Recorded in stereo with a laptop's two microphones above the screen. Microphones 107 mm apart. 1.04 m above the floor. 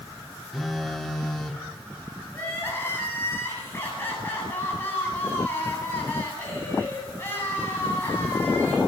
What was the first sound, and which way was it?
A phone buzzing, centre (ahead or behind).